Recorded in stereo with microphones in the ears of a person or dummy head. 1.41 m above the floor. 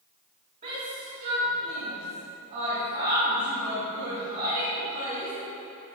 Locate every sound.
0.6 s a shout: 40° right (ahead or behind), 1.9 m